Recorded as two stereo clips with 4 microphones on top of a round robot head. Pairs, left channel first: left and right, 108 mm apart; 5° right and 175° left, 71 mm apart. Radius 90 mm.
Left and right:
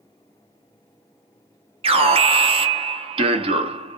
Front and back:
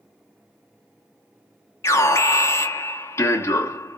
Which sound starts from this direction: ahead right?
An alarm, at 1.8 s.